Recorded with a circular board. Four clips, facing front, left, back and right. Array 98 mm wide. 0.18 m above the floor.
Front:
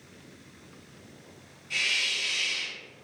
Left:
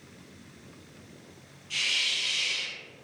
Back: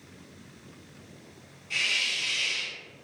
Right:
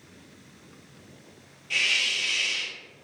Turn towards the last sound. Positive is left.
turn(degrees=-95)